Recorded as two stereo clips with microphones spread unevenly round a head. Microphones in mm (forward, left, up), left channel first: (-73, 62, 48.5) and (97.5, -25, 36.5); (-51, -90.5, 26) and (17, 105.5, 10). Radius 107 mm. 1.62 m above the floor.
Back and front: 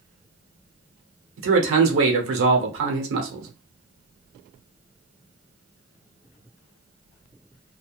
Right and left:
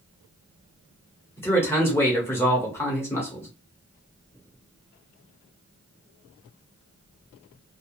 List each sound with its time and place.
1.4 s a man speaking: 30° right, 1.0 m